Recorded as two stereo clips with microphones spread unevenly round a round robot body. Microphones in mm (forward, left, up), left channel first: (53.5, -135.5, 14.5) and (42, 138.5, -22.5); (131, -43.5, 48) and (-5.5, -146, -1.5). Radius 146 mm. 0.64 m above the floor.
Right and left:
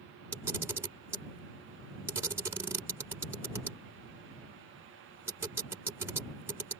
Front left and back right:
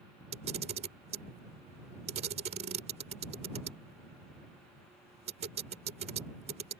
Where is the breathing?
I don't hear breathing.